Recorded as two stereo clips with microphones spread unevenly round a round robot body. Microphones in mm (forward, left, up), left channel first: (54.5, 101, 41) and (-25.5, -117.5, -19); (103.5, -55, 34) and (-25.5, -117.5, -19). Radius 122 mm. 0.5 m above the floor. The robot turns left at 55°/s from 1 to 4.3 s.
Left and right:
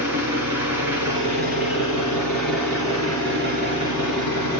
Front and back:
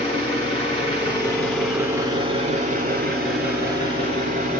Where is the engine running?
25° right, 2 m; by 4.6 s 150° left, 2 m.